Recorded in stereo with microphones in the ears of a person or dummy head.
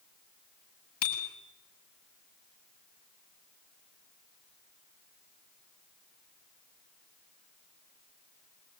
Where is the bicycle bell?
50° left (ahead or behind), 7 m.